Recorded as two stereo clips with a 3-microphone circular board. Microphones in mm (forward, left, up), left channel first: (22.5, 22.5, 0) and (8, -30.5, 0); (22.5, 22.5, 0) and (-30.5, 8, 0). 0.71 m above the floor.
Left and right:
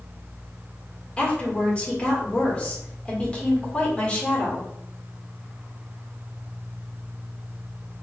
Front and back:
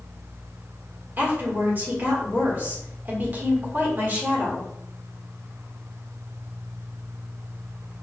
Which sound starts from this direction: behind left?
A woman speaking, at 1.2 s.